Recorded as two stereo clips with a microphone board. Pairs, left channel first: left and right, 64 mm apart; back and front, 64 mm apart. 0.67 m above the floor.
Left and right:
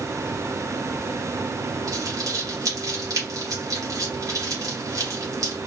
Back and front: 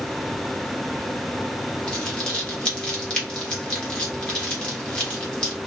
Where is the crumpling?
105° right, 1.0 m.